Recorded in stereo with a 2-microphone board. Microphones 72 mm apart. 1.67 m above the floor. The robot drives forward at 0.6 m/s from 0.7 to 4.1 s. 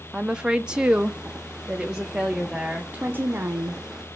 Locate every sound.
0.1 s a woman speaking: 15° right (ahead or behind), 0.6 m; by 2.8 s 5° right (ahead or behind), 1.2 m
2.9 s a woman speaking: 25° right (ahead or behind), 1.1 m; by 3.8 s 40° right (ahead or behind), 0.7 m